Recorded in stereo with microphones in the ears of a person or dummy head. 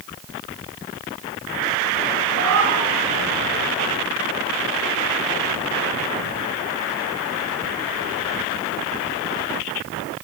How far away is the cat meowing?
About 9 m.